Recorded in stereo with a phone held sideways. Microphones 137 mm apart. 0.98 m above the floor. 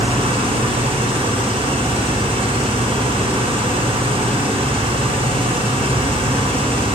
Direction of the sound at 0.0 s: 40° right (ahead or behind).